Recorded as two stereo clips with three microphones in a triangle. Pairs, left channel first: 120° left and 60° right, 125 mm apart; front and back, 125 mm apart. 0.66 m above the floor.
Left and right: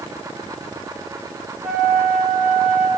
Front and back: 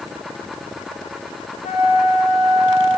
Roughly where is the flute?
Ahead left.